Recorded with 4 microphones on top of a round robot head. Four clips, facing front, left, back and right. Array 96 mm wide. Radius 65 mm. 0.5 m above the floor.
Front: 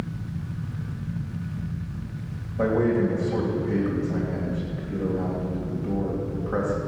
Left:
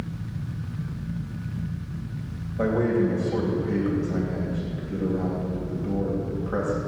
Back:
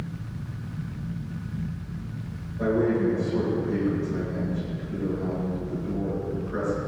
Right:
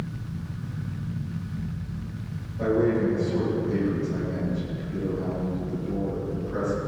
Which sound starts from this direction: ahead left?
A man speaking, at 2.6 s.